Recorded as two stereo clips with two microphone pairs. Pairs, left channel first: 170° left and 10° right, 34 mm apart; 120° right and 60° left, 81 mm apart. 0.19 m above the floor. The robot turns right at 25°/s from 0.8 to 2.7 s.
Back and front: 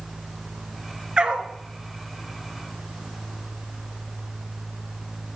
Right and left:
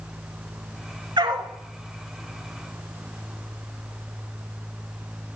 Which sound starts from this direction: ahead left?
A dog barking, at 1.2 s.